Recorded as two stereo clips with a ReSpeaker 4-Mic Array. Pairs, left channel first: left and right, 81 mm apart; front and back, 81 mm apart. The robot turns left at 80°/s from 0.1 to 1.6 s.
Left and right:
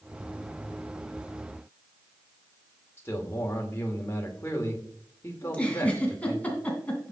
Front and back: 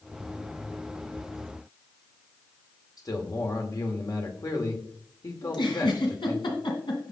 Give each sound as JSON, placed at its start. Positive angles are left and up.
{"t": 3.0, "sound": "a man speaking", "azimuth_deg": 35, "distance_m": 2.0}
{"t": 5.4, "sound": "a giggle", "azimuth_deg": 15, "distance_m": 2.5}